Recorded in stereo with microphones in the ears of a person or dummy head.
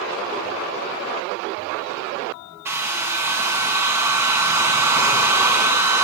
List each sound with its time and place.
2.6 s a hair dryer: 10° right (ahead or behind), 1.8 m